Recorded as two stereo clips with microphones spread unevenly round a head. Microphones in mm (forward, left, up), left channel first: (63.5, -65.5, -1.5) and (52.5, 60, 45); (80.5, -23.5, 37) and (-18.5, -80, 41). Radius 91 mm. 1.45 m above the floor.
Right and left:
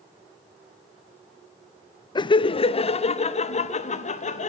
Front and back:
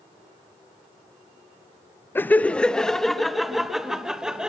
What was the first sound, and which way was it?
Laughter, 40° right.